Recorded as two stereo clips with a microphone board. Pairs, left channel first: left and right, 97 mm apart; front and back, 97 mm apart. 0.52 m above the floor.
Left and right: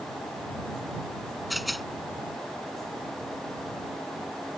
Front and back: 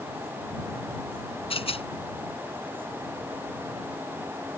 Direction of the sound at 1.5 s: Straight ahead.